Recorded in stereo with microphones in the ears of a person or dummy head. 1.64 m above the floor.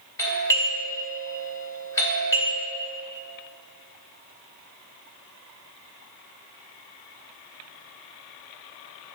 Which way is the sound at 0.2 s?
15° left (ahead or behind).